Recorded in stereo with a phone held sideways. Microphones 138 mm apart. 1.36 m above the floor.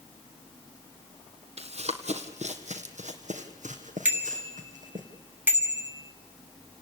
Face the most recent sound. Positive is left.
turn(degrees=-15)  # may be behind; listen again after turning